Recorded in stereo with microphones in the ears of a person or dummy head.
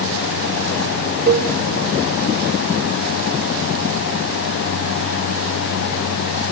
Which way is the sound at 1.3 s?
55° right (ahead or behind).